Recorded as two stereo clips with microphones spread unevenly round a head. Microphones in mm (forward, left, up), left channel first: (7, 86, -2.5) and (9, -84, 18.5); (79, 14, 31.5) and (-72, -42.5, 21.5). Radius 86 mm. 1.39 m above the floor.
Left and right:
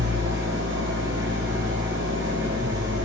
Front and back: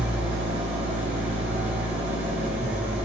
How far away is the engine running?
About 3 m.